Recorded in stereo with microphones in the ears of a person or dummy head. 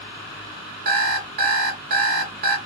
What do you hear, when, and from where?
0.8 s an alarm clock: 55° right (ahead or behind), 0.7 m